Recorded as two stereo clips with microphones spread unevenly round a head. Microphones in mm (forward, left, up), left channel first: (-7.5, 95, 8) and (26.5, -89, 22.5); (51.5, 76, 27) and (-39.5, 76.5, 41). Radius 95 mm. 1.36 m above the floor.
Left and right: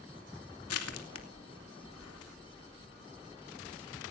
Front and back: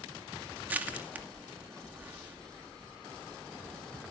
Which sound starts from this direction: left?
Crushing, at 0.7 s.